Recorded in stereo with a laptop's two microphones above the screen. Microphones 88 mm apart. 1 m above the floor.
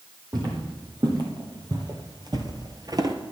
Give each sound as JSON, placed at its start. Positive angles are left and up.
{"t": 0.3, "sound": "footsteps", "side_deg": -45, "distance_m": 2.0}